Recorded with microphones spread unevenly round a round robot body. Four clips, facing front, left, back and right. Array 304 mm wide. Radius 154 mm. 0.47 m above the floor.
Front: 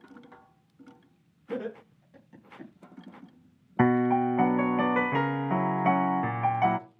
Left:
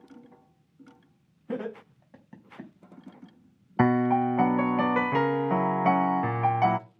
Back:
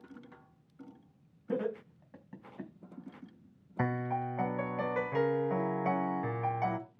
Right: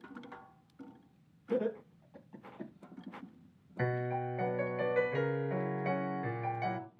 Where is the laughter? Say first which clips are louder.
Right 1 dB, back 1 dB; 130° left, 4 m.